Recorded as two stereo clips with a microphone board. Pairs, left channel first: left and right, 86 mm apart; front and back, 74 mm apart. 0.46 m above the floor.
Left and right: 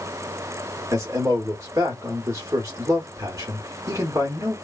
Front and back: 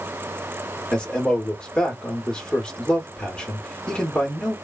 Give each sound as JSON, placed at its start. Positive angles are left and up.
{"t": 0.9, "sound": "a man speaking", "azimuth_deg": -70, "distance_m": 1.0}